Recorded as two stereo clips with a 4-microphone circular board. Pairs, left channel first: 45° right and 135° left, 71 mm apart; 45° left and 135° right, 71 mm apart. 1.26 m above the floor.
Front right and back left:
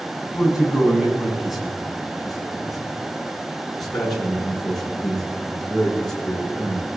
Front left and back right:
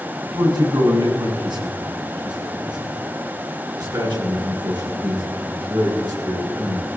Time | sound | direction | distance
0.2 | a man speaking | 145° right | 7.5 m